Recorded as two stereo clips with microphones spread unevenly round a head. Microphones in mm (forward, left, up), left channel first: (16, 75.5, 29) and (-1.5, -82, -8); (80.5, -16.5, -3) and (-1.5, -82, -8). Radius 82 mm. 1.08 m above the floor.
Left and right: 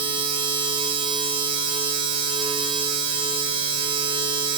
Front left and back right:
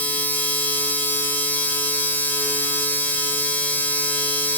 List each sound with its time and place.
0.0 s a machine running: 35° right, 4.5 m